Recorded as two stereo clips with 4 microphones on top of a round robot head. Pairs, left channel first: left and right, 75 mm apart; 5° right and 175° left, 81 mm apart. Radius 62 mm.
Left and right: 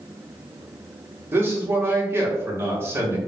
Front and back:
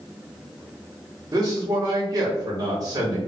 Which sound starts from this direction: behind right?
A man speaking, at 1.3 s.